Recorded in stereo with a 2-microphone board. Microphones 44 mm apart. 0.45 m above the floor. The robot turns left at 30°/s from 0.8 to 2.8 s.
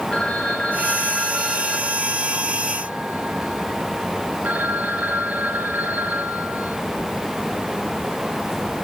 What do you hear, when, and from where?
0.1 s a phone ringing: 20° left, 5.5 m; by 6.8 s 40° right, 5.5 m